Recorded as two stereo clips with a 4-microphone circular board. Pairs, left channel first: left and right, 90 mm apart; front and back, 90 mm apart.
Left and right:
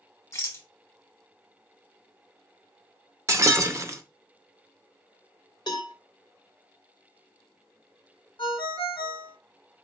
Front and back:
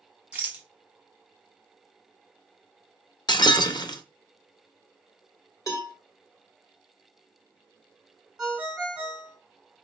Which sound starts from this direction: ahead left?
A cowbell, at 5.7 s.